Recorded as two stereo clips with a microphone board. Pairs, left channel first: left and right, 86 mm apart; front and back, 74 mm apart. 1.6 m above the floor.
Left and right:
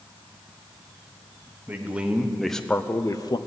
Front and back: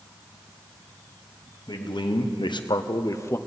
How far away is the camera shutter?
No camera shutter in this recording.